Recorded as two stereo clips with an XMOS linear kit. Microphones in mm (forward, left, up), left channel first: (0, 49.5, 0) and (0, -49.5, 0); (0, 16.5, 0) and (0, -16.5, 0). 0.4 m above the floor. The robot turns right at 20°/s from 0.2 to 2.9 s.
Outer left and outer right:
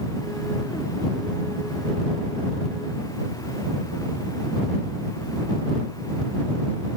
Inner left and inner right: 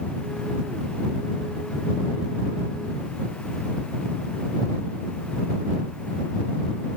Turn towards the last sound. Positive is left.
No sound to turn to.